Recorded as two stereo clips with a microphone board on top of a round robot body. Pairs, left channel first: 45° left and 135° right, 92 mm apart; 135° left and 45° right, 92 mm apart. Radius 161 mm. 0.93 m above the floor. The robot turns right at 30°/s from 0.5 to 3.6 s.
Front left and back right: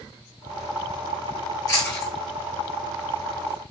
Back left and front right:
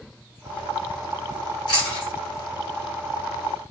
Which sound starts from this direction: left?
Chewing, at 1.7 s.